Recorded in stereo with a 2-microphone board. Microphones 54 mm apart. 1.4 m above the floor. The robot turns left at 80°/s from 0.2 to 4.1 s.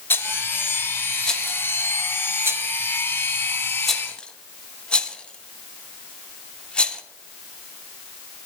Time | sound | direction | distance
0.1 | a rattle | 45° left (ahead or behind) | 0.9 m